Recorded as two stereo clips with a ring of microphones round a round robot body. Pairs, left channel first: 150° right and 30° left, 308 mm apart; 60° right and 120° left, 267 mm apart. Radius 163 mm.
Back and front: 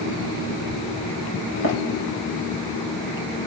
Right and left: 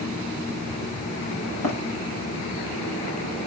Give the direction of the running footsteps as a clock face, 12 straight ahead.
3 o'clock.